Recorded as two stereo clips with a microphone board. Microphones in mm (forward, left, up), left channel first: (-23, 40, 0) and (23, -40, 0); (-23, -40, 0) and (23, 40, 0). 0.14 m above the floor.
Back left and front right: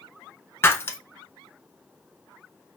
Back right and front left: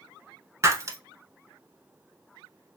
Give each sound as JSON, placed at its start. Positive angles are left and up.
{"t": 0.6, "sound": "breaking glass", "azimuth_deg": 80, "distance_m": 0.6}